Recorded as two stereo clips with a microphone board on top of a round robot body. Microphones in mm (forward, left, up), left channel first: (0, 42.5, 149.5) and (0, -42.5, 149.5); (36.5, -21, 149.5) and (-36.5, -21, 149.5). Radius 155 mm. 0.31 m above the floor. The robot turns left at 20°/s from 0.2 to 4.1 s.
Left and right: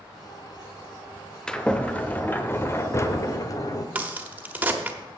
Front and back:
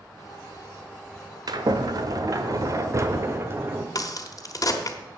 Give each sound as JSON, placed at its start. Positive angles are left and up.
{"t": 1.5, "sound": "a sliding door", "azimuth_deg": 170, "distance_m": 1.1}
{"t": 4.0, "sound": "a crack", "azimuth_deg": -20, "distance_m": 1.5}